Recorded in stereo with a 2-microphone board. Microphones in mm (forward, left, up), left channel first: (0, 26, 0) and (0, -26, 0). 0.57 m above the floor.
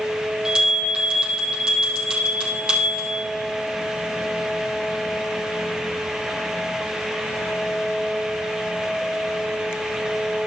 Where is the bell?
15° right (ahead or behind), 4.5 m.